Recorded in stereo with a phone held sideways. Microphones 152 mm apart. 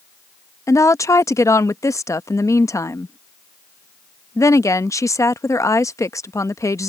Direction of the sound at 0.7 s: 20° left (ahead or behind).